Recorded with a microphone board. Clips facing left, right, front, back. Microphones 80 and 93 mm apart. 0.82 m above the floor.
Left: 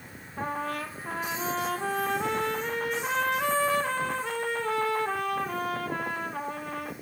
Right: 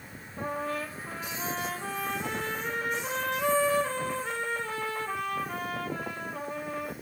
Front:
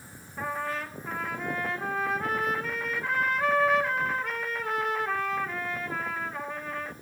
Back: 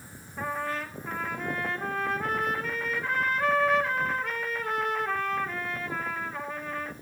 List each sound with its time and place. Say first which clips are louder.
0.4 s a trumpet: left 1 dB, even; 90° left, 2.5 m